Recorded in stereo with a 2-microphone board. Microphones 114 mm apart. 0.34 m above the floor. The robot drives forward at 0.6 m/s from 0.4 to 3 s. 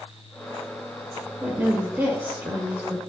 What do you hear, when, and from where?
1.4 s a woman speaking: 15° right (ahead or behind), 1.3 m